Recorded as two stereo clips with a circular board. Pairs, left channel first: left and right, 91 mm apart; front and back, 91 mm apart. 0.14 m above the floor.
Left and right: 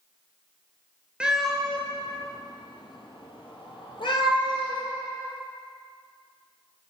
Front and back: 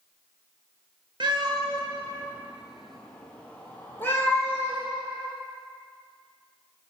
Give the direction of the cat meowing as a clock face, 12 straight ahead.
6 o'clock.